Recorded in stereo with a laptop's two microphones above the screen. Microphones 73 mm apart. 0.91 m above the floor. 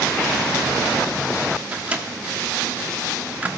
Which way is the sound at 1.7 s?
20° right (ahead or behind).